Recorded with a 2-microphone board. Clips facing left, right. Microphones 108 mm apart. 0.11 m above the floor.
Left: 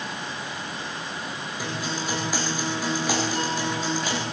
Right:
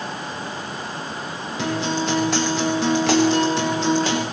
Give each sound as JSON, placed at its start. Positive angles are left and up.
{"t": 1.6, "sound": "a guitar", "side_deg": -80, "distance_m": 8.5}